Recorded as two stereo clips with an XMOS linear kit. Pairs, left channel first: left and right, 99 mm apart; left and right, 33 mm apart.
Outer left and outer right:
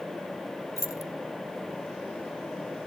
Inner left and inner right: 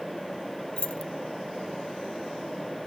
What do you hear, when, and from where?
0.8 s keys jangling: 35° left (ahead or behind), 0.7 m